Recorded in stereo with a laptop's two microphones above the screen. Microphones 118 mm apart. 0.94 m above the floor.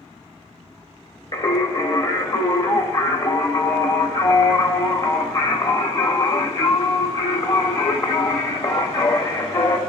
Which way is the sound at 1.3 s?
40° left (ahead or behind).